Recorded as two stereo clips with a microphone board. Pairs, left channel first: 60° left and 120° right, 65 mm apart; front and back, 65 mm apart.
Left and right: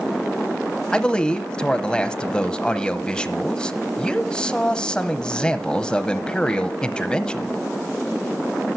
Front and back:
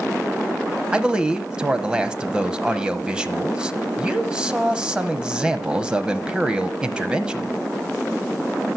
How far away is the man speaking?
About 1.0 m.